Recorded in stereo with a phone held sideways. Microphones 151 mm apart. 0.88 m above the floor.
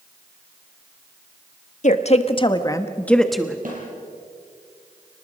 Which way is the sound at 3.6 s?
60° right (ahead or behind).